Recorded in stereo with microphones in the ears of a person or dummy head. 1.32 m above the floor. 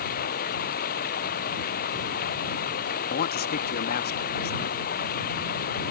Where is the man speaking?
45° left (ahead or behind).